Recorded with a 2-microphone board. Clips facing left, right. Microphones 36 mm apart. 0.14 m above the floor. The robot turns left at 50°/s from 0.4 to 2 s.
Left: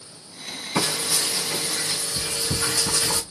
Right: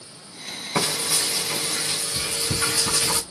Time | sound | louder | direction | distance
0.8 | frying | even | 20° right | 3 m